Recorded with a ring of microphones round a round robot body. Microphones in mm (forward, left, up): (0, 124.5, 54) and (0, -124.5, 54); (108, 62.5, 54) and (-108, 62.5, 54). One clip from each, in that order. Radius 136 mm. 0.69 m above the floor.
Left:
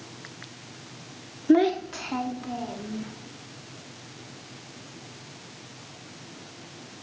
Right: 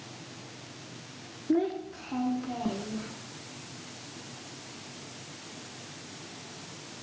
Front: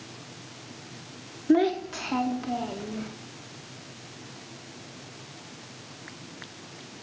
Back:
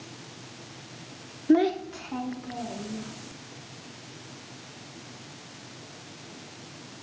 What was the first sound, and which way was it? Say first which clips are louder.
A child speaking: left 8 dB, even; 100° left.